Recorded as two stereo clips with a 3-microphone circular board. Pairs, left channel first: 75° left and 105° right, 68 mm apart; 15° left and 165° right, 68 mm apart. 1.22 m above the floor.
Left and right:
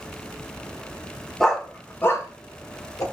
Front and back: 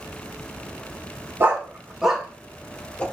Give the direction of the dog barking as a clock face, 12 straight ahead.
7 o'clock.